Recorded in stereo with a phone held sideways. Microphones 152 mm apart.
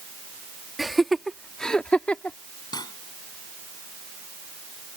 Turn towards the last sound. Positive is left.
turn(degrees=30)  # may be behind; listen again after turning